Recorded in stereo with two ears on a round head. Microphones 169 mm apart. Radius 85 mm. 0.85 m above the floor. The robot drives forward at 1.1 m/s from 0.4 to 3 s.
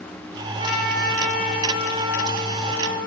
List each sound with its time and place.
0.6 s a trumpet: 70° right (ahead or behind), 5 m; by 3.0 s 75° right (ahead or behind), 5 m